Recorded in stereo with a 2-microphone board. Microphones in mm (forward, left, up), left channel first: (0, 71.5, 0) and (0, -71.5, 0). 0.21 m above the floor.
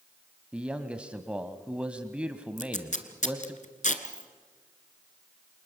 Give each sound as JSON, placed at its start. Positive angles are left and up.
{"t": 0.5, "sound": "a man speaking", "side_deg": -10, "distance_m": 1.2}
{"t": 2.6, "sound": "tape being pulled", "side_deg": 65, "distance_m": 1.7}
{"t": 4.0, "sound": "a dropped coin", "side_deg": -5, "distance_m": 2.0}